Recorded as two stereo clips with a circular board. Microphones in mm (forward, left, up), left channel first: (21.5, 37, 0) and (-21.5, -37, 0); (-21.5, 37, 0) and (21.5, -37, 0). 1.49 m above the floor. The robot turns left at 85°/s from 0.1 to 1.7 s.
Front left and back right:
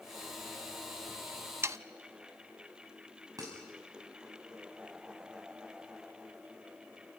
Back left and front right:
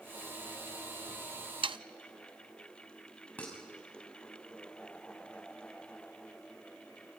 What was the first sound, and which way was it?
Sawing, 60° right.